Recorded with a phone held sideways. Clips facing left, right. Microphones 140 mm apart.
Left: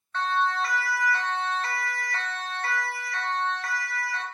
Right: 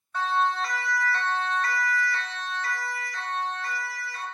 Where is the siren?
10° right (ahead or behind), 3 m; by 4.2 s 85° left, 3.5 m.